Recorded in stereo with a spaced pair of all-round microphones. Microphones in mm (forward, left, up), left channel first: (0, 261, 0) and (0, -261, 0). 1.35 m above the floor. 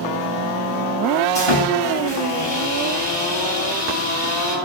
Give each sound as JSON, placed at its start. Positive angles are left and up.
{"t": 1.4, "sound": "sawing", "side_deg": 90, "distance_m": 8.5}